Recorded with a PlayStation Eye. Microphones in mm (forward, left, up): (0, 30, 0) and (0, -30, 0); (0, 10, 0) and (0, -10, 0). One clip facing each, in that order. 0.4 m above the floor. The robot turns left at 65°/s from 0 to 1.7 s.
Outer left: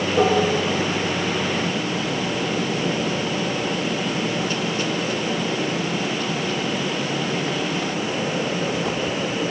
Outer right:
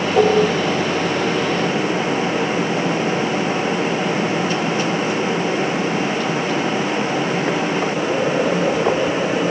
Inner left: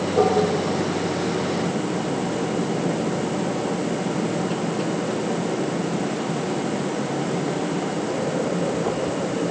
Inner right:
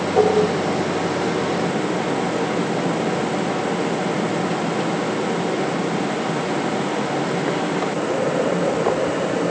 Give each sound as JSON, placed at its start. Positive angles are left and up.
{"t": 0.2, "sound": "dishes clattering", "side_deg": -75, "distance_m": 9.5}